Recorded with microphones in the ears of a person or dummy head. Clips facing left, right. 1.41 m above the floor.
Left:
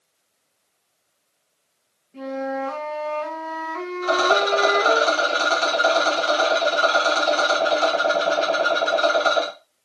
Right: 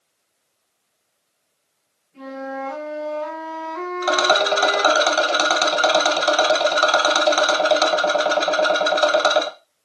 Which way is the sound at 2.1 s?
60° left (ahead or behind).